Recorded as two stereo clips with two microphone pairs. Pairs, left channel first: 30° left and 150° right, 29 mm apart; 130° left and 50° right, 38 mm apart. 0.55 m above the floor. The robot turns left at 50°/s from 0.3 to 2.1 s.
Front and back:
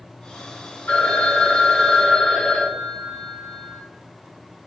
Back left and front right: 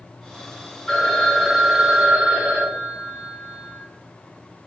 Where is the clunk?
I don't hear a clunk.